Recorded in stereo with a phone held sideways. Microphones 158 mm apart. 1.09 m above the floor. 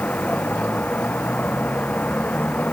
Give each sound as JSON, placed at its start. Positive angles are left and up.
{"t": 0.0, "sound": "a vehicle", "side_deg": 10}